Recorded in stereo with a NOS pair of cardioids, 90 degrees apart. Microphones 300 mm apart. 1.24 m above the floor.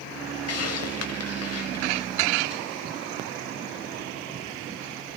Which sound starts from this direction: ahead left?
A hiss, at 0.5 s.